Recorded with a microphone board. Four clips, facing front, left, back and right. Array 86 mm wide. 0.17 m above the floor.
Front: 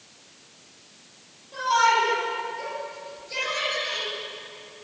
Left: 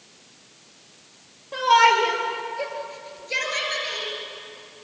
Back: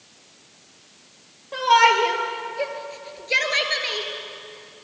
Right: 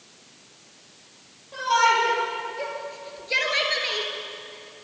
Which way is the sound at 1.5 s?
145° left.